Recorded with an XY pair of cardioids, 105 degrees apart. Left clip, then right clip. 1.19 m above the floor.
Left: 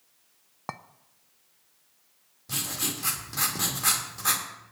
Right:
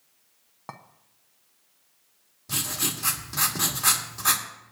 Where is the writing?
10° right, 2.5 m.